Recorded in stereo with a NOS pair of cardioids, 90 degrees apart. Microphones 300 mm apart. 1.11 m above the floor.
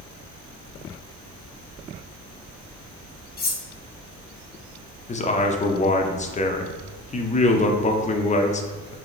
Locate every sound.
3.4 s cutlery clinking: 30° left, 0.9 m
5.1 s a man speaking: 25° left, 0.6 m